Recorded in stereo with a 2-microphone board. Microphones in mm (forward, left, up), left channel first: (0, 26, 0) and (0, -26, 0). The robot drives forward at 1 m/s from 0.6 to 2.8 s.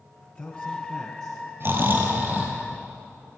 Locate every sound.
0.2 s a man speaking: 30° left (ahead or behind), 1.6 m; by 1.4 s 20° left (ahead or behind), 2.5 m
1.6 s snoring: 45° right (ahead or behind), 1.6 m; by 2.6 s 30° right (ahead or behind), 2.5 m